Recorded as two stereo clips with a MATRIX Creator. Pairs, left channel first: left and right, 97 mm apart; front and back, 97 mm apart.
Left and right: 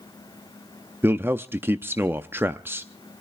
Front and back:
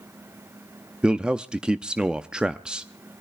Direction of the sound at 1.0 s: 115° right.